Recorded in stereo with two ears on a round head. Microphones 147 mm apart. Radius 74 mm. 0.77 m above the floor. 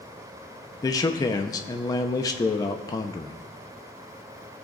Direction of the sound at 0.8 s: 20° left (ahead or behind).